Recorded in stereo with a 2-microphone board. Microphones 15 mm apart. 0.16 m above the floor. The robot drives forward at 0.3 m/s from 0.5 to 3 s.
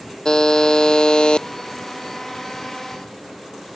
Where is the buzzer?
45° left (ahead or behind); by 1.5 s 65° left (ahead or behind).